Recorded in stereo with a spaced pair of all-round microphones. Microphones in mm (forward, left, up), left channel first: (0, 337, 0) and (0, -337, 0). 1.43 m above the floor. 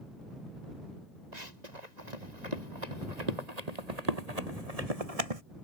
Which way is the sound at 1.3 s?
80° right.